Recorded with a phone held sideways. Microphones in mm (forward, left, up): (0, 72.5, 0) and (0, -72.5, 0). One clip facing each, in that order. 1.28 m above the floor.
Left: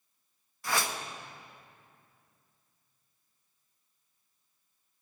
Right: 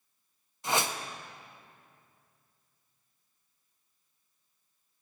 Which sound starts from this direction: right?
A whoosh, at 0.6 s.